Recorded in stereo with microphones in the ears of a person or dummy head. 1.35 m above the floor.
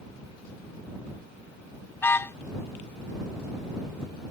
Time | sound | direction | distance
2.0 | a car horn | 10° left (ahead or behind) | ?